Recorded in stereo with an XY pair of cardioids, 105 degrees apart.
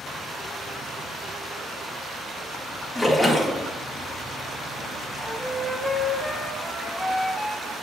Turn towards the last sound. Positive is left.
turn(degrees=0)